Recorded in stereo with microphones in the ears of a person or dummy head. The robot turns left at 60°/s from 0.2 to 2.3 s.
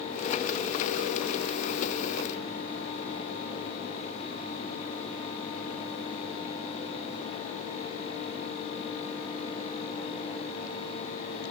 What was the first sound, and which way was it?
Only background noise.